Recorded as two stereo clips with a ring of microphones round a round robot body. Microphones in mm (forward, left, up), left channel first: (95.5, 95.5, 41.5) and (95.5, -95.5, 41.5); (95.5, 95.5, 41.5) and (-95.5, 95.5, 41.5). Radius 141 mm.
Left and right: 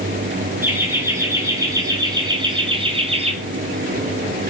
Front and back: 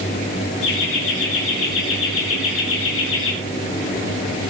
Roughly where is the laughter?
Ahead.